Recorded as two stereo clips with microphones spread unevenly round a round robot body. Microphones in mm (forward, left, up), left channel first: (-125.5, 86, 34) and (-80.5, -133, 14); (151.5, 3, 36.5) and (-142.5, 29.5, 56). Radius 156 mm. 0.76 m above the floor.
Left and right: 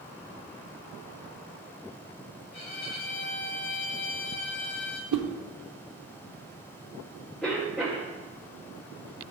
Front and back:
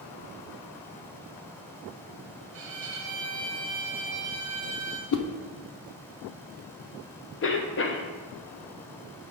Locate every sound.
2.5 s a violin: 145° left, 1.6 m
5.1 s a whoosh: 45° right, 0.7 m
7.4 s a cough: 10° left, 1.1 m